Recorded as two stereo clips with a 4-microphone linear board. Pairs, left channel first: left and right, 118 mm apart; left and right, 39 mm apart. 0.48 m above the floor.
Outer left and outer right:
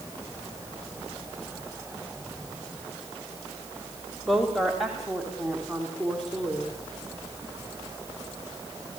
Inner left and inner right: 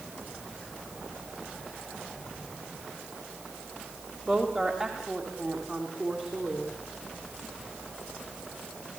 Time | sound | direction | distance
4.3 | a woman speaking | 5° right (ahead or behind) | 2.5 m